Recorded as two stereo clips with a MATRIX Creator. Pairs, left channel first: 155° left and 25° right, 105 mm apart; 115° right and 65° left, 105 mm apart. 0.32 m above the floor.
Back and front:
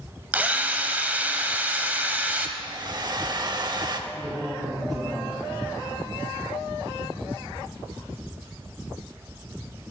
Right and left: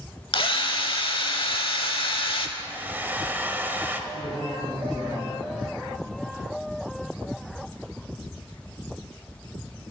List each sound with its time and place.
0.3 s a drill: 95° right, 0.7 m
2.6 s a hair dryer: 5° left, 0.6 m
4.1 s a man speaking: 65° right, 2.5 m